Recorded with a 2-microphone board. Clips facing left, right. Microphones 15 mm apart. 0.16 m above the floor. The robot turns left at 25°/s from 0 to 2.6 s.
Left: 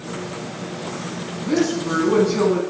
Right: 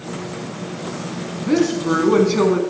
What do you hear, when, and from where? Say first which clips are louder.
1.4 s a woman speaking: right 2 dB; 20° right (ahead or behind), 1.1 m; by 2.6 s 25° right (ahead or behind), 1.1 m